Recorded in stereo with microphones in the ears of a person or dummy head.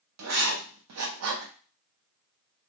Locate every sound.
0.2 s writing: 75° right (ahead or behind), 0.6 m